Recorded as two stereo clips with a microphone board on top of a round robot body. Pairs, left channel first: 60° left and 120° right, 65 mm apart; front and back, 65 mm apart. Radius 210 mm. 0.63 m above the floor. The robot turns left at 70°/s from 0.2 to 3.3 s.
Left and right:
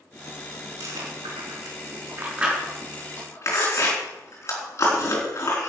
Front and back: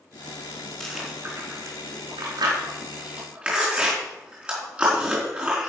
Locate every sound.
0.8 s chewing: 80° right, 4 m; by 5.7 s 105° left, 4 m